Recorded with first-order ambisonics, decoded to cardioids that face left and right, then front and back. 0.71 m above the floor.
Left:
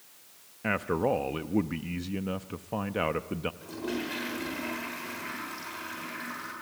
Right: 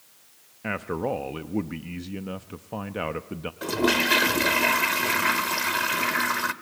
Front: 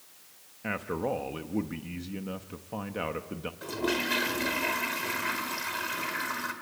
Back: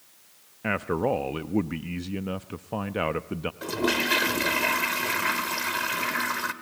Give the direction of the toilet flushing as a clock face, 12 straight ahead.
4 o'clock.